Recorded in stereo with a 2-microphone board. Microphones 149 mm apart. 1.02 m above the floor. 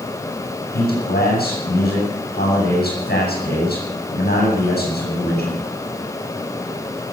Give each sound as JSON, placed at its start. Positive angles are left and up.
{"t": 0.7, "sound": "a man speaking", "side_deg": 75, "distance_m": 7.5}